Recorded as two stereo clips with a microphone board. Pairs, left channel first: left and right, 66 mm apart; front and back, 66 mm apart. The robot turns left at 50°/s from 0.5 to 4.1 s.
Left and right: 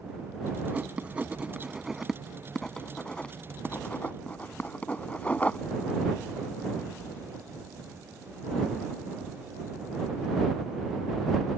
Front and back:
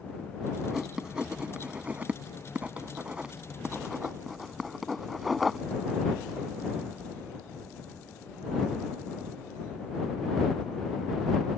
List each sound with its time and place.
0.7 s writing: 100° right; by 5.6 s 90° left